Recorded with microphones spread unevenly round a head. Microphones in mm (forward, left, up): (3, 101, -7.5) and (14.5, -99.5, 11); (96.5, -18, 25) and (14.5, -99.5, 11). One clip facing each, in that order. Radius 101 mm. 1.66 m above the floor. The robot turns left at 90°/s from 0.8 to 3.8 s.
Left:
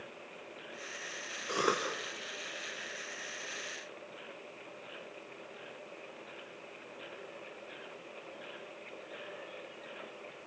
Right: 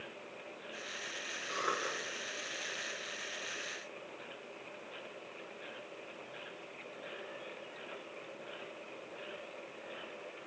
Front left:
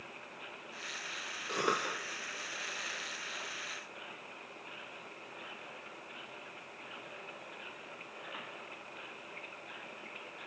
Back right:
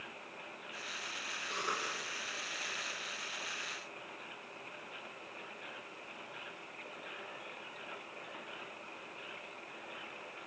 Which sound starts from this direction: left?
A cough, at 1.5 s.